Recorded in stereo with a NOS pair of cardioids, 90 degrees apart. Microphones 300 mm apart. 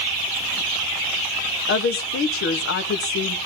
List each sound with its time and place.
1.7 s a woman speaking: 45° left, 1.2 m